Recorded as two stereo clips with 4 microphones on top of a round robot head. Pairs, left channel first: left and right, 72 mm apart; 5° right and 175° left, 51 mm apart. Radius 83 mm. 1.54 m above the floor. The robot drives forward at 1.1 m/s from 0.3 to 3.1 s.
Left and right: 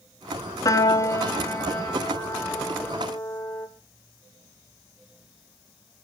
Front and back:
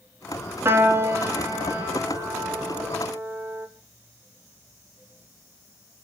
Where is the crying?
I don't hear crying.